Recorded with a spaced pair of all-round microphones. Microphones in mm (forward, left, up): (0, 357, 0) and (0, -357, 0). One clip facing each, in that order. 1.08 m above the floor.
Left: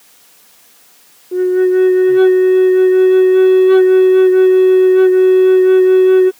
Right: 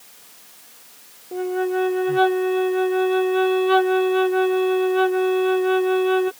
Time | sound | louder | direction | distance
1.3 | a flute | left 12 dB | 20° right (ahead or behind) | ?